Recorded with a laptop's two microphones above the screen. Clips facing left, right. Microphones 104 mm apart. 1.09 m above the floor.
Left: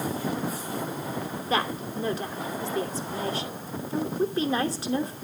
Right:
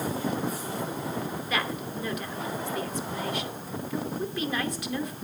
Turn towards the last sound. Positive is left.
turn(degrees=35)  # may be behind; listen again after turning